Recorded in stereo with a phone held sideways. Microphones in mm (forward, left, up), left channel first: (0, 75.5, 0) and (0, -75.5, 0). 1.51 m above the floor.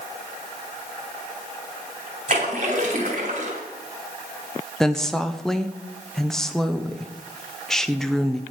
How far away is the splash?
About 1.8 m.